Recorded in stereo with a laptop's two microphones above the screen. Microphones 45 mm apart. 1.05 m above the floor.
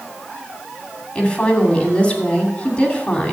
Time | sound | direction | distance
1.1 | a woman speaking | 35° left (ahead or behind) | 2.5 m